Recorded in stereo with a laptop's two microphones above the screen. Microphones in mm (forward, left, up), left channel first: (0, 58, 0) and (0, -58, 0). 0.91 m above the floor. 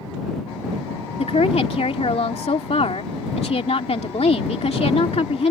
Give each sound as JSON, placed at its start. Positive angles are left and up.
{"t": 1.2, "sound": "a woman speaking", "side_deg": 65}